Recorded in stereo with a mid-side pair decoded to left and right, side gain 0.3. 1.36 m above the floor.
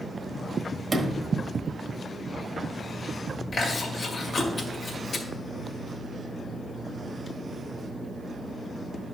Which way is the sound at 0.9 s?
50° right.